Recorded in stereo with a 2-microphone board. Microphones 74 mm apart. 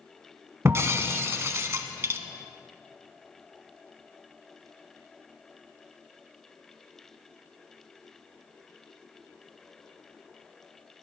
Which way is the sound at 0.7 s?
35° right (ahead or behind).